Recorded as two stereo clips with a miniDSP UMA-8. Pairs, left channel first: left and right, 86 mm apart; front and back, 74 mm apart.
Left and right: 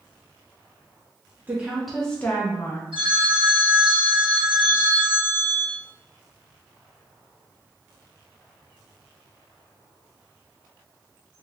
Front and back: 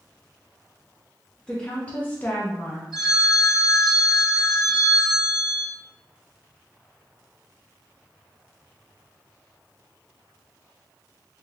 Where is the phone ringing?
90° right, 1.8 m.